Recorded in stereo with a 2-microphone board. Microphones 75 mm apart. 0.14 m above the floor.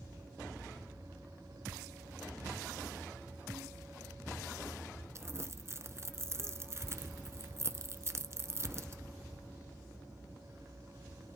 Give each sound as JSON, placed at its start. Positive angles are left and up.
{"t": 5.2, "sound": "crumpling", "side_deg": -35, "distance_m": 0.7}